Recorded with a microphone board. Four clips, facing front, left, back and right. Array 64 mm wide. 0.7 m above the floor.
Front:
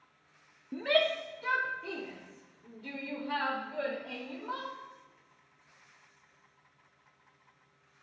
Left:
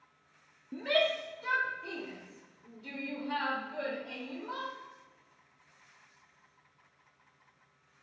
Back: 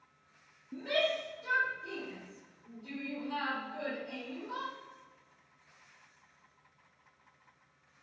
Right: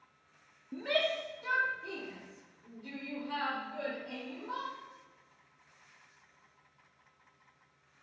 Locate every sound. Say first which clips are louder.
0.7 s a shout: left 3 dB, front 4 dB; 5° left, 0.7 m; by 4.7 s 10° left, 3 m